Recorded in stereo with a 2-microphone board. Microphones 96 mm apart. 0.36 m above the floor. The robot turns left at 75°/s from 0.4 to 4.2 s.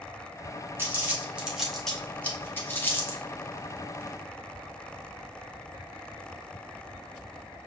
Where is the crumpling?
25° right (ahead or behind), 1.4 m; by 3.2 s 20° left (ahead or behind), 1.4 m.